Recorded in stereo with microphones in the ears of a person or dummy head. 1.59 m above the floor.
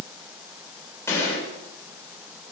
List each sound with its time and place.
1.1 s a gunshot: 20° left (ahead or behind), 6.5 m